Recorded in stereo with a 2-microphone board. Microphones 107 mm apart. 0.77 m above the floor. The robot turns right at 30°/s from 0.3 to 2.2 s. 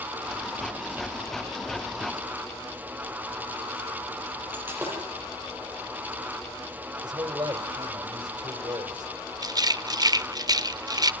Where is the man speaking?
40° right (ahead or behind), 2.5 m.